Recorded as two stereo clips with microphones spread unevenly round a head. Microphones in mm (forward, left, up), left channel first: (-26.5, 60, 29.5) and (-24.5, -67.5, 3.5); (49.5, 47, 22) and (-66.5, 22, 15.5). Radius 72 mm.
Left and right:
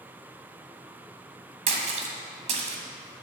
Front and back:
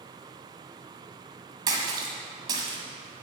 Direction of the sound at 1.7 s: 115° right.